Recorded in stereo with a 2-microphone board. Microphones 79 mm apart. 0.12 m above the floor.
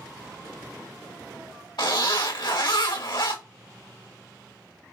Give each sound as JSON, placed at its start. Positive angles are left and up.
{"t": 1.8, "sound": "a zipper", "side_deg": 75, "distance_m": 3.0}